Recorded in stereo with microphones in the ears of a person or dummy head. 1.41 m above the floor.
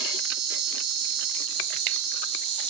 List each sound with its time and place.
0.0 s an insect: 75° right (ahead or behind), 1.1 m